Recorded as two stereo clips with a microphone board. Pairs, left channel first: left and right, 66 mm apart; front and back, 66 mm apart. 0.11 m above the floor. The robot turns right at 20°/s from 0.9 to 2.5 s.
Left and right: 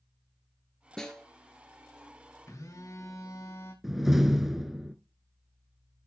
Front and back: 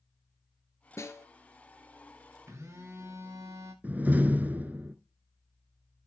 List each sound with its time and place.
1.0 s a snare drum: 10° left, 2.0 m; by 1.2 s 20° left, 2.0 m
2.5 s a phone buzzing: 130° left, 5 m
3.8 s a door slam: 170° right, 1.0 m